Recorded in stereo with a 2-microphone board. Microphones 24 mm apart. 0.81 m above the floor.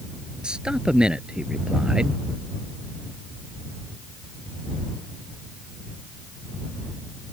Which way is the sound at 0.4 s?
45° right (ahead or behind).